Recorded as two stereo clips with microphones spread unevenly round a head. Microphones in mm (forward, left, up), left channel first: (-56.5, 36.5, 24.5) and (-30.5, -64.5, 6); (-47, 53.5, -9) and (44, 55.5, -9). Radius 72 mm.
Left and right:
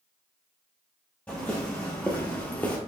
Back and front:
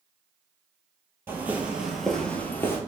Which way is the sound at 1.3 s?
50° left.